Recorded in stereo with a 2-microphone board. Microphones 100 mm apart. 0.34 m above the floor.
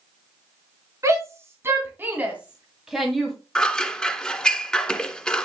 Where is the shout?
30° right (ahead or behind), 3.5 m; by 3.4 s 5° left (ahead or behind), 2 m.